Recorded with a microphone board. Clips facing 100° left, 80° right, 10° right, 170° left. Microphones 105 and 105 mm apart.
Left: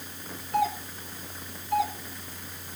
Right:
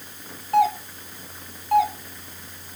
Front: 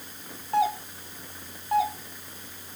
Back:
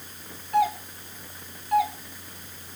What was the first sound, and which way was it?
A doorbell, 70° right.